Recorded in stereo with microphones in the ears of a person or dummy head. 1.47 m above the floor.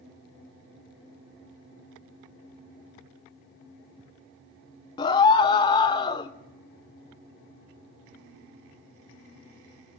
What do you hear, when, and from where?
5.0 s a scream: 30° left (ahead or behind), 0.5 m